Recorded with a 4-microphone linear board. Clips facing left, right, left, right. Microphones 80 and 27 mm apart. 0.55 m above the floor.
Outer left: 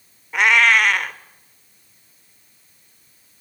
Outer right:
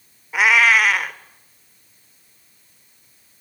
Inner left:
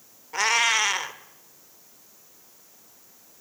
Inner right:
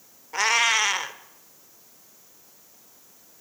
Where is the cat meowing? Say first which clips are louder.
Even, inner right 1 dB; 5° right (ahead or behind), 0.6 m.